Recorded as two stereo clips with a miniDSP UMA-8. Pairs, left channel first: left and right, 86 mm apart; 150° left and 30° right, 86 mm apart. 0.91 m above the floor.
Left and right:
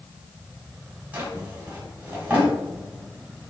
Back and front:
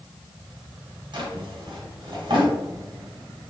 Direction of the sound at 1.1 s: 20° right.